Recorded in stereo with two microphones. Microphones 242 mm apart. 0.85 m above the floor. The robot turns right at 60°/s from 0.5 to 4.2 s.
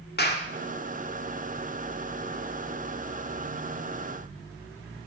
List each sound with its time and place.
0.2 s a clap: 40° left (ahead or behind), 1.9 m